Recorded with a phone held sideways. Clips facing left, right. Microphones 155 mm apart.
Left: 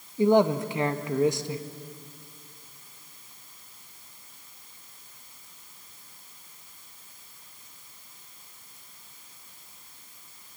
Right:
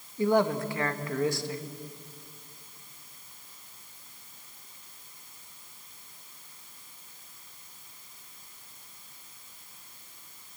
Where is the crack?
I don't hear a crack.